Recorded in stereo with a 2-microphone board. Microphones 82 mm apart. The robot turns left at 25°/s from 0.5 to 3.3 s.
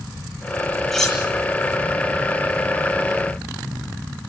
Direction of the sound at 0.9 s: Centre (ahead or behind).